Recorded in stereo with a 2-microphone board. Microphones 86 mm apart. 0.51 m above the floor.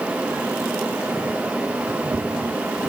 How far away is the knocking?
No knocking in this recording.